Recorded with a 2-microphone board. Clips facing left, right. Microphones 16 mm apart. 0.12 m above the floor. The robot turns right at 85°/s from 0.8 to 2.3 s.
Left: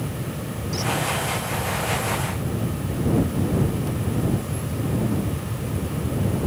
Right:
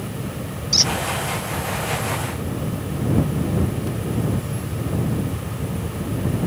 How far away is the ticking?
I don't hear ticking.